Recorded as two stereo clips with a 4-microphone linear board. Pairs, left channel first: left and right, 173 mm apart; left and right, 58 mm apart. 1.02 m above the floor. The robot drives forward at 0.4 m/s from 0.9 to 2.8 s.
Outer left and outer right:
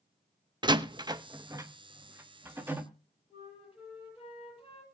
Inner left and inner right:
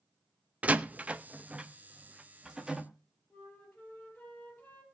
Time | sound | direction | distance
0.6 | a door slam | 25° right (ahead or behind) | 0.7 m
3.3 | a flute | 30° left (ahead or behind) | 6 m